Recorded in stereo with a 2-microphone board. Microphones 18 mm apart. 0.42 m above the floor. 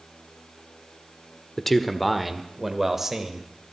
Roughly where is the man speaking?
Centre.